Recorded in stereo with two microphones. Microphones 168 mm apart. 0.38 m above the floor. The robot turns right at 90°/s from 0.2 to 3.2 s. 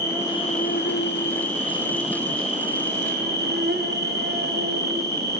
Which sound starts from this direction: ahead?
An insect, at 0.0 s.